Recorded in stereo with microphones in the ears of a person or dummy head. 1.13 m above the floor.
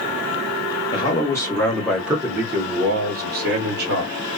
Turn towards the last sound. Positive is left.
turn(degrees=-55)  # may be behind; listen again after turning